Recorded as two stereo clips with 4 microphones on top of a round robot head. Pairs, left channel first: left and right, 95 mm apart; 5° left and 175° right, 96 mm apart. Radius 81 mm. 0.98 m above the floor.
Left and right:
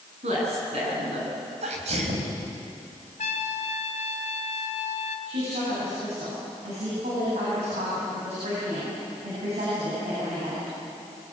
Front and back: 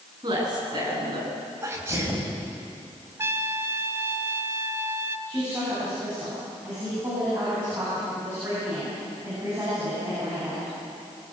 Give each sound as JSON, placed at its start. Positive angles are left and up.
{"t": 0.2, "sound": "a woman speaking", "azimuth_deg": -120, "distance_m": 8.5}
{"t": 1.6, "sound": "a sneeze", "azimuth_deg": -105, "distance_m": 5.0}
{"t": 3.2, "sound": "a trumpet", "azimuth_deg": 120, "distance_m": 1.4}
{"t": 5.3, "sound": "a woman speaking", "azimuth_deg": -100, "distance_m": 9.5}